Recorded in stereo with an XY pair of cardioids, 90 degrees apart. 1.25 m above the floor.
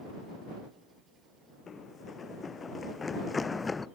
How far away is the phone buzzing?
No phone buzzing in this recording.